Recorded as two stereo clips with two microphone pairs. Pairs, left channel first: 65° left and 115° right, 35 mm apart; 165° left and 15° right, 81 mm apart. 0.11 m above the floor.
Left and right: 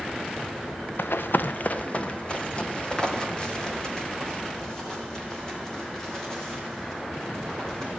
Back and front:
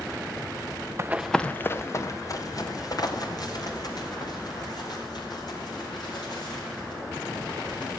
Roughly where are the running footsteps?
Ahead left.